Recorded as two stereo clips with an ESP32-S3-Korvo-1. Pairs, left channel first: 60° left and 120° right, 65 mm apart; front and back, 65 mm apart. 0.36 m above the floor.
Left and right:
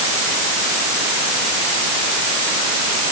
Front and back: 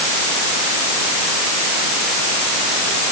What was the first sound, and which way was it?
Only background noise.